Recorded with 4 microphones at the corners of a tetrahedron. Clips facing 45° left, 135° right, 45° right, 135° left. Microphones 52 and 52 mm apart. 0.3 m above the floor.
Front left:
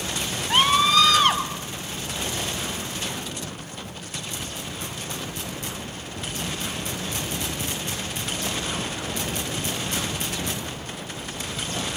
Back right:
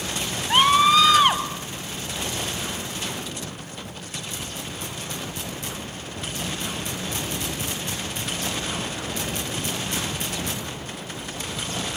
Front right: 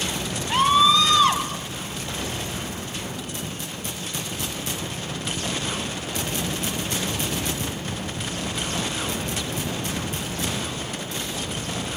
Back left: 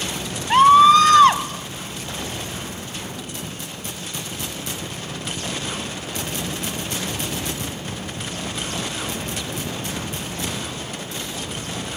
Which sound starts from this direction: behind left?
A scream, at 0.5 s.